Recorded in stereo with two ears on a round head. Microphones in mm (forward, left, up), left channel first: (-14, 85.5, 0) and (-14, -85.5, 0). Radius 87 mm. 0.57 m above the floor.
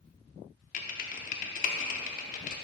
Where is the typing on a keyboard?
45° left (ahead or behind), 0.6 m.